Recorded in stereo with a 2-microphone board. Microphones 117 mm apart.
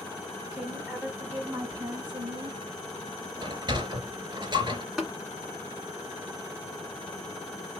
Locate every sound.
0.5 s a woman speaking: 5° right (ahead or behind), 2.0 m; by 2.6 s 45° right (ahead or behind), 1.8 m
3.4 s a sliding door: 40° right (ahead or behind), 1.3 m
5.0 s tapping: 5° right (ahead or behind), 1.6 m